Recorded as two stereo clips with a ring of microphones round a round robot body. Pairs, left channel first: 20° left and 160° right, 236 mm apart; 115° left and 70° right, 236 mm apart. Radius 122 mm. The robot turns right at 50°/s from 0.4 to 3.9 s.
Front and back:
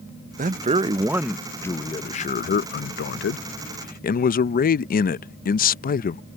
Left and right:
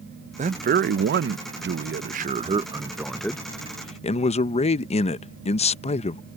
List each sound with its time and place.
0.4 s a man speaking: 115° right; by 6.2 s 60° left